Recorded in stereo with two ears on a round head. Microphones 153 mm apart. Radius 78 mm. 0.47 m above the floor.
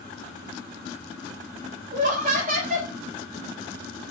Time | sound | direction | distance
1.9 | laughter | 45° right (ahead or behind) | 1.6 m